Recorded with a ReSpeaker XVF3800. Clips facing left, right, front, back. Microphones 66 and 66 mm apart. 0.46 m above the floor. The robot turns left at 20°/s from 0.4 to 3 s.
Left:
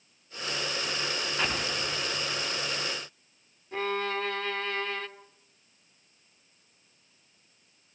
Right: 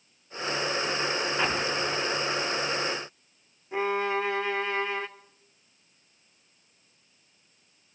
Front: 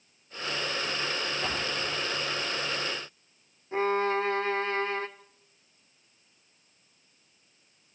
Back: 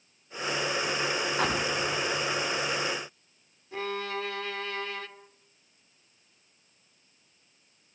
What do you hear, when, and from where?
1.4 s an explosion: 165° right, 3.5 m; by 2.8 s 165° left, 3.5 m
3.7 s a violin: 25° right, 1.6 m